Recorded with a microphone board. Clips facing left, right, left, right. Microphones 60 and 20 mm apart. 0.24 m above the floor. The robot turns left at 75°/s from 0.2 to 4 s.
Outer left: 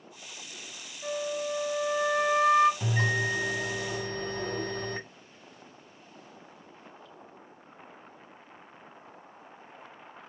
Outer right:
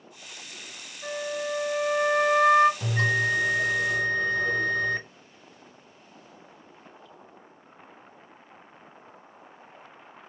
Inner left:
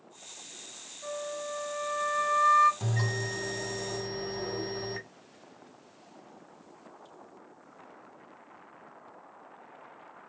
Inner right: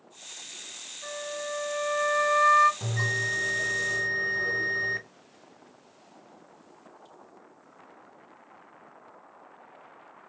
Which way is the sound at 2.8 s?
175° left.